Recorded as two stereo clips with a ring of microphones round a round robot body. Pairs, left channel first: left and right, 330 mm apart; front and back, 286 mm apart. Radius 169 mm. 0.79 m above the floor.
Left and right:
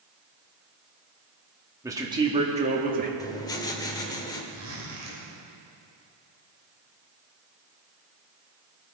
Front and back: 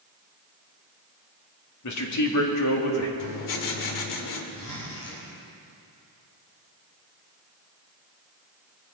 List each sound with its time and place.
1.8 s a man speaking: 10° right, 2.0 m; by 3.1 s 30° right, 1.9 m
3.2 s writing: 10° left, 1.5 m
4.5 s a zipper: 45° right, 3.5 m